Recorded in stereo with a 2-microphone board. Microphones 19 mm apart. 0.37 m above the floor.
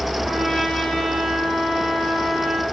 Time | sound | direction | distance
0.2 | a trumpet | 75° right (ahead or behind) | 7 m